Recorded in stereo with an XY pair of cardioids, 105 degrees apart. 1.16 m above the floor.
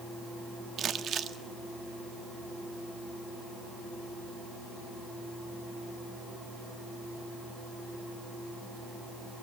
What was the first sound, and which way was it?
Crumpling, 60° right.